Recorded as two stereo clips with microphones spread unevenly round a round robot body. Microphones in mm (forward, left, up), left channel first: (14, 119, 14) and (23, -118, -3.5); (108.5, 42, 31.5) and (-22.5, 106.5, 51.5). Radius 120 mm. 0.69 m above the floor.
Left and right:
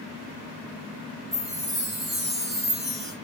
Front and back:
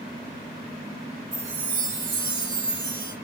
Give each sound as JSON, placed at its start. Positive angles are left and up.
{"t": 1.3, "sound": "a chime", "azimuth_deg": 180, "distance_m": 1.7}